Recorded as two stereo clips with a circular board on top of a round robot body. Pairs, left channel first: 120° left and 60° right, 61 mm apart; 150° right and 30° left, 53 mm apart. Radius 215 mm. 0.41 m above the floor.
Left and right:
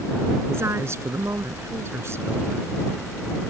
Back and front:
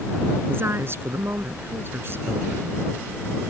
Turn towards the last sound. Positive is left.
turn(degrees=-10)